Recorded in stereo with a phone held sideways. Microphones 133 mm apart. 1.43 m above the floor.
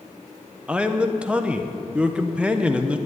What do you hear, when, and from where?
0.7 s a man speaking: 10° right (ahead or behind), 1.1 m